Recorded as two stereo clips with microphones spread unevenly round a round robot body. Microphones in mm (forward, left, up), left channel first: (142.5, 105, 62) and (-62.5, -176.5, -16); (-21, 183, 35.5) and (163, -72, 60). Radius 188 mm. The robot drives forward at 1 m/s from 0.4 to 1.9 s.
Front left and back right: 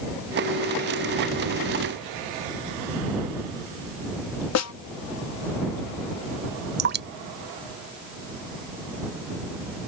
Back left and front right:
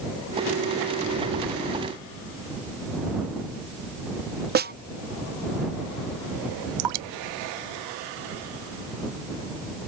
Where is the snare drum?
5° left.